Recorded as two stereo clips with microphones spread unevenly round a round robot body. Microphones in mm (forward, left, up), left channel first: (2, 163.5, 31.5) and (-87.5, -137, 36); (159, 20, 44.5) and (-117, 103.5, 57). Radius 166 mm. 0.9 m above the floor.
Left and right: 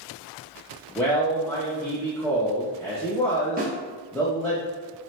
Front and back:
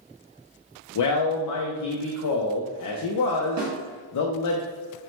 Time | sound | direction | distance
0.9 | a man speaking | 10° right | 0.6 m
3.6 | a snare drum | 165° right | 1.2 m